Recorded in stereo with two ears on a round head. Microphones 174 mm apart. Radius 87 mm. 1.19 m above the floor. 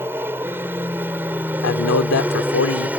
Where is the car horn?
No car horn in this recording.